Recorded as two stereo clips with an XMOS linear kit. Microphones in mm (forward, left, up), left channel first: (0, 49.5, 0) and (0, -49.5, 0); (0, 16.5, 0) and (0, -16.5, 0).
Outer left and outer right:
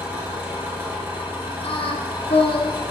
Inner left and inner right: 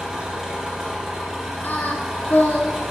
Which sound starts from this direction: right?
An engine running, at 0.0 s.